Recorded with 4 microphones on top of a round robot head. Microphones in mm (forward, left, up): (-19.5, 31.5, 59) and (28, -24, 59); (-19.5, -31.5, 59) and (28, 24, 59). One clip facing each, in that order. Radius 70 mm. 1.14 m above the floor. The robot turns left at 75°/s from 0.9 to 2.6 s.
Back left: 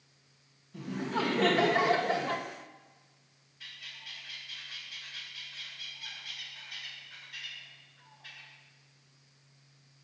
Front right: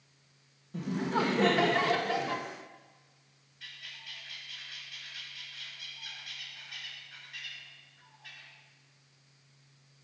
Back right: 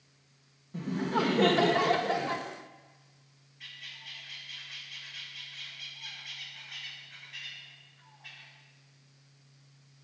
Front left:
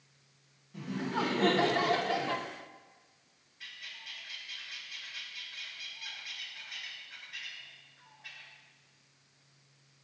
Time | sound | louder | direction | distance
0.7 | laughter | front right 3 dB, back right 4 dB | 85° right | 1.1 m
3.6 | a bird | even, even | 135° left | 2.5 m